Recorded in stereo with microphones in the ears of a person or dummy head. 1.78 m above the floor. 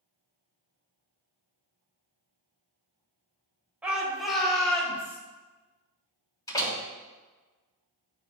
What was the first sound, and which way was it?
A shout, 10° right (ahead or behind).